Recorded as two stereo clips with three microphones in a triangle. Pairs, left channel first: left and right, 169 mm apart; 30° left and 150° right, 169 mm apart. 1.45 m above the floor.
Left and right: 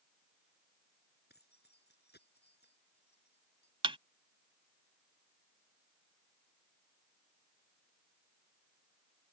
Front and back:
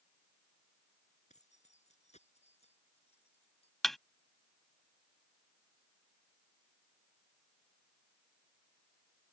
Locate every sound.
1.3 s keys jangling: 75° left; by 3.7 s 85° left
3.8 s a thud: 60° right